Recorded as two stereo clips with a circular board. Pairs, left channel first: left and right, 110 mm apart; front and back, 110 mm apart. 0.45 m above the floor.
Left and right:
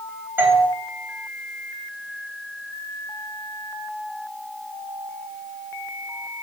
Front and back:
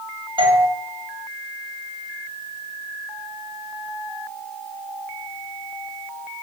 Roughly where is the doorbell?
Behind right.